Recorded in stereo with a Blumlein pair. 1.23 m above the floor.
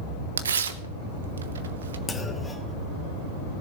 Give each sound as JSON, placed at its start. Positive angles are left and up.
{"t": 0.4, "sound": "tearing paper", "azimuth_deg": -70, "distance_m": 0.9}
{"t": 2.1, "sound": "a clunk", "azimuth_deg": 10, "distance_m": 1.5}